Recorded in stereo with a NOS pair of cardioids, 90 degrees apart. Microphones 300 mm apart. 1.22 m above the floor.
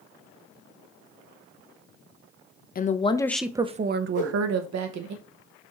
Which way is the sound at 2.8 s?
30° left.